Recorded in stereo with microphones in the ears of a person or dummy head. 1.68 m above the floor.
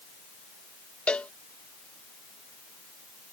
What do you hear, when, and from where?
1.1 s a cowbell: 5° left (ahead or behind)